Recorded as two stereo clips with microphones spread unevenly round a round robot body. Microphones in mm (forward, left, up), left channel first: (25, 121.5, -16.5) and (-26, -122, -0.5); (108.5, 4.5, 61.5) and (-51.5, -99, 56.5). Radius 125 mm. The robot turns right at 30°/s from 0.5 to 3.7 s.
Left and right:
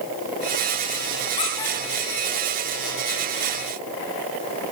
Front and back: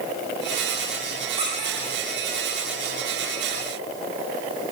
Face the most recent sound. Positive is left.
turn(degrees=-145)